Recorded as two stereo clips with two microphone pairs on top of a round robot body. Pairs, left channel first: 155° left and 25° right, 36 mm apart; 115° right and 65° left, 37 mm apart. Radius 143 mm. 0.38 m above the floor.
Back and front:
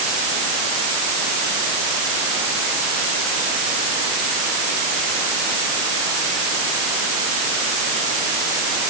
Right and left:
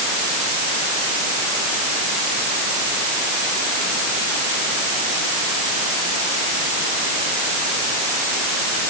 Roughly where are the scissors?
No scissors in this recording.